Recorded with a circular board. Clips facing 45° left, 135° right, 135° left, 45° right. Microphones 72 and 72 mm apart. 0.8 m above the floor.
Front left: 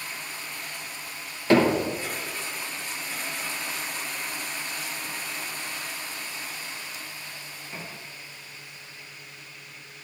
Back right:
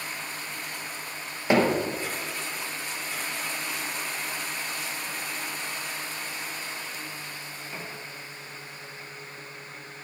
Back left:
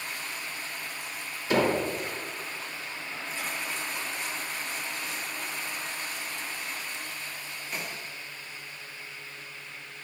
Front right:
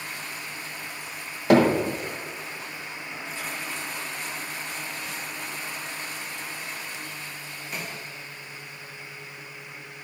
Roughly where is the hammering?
Ahead right.